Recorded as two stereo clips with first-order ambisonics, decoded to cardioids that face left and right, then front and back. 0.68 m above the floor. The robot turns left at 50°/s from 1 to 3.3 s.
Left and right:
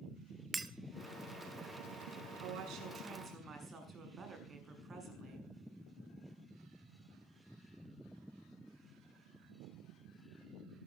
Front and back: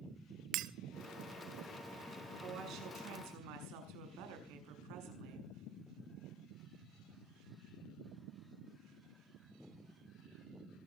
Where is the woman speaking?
115° right, 7 m; by 5.5 s 160° right, 7 m.